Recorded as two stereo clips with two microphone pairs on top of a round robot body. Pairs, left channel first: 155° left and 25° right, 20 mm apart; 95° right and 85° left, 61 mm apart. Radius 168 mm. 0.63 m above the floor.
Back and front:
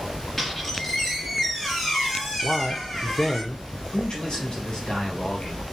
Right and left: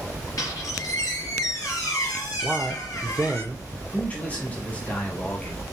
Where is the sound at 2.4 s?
95° left, 1.2 m.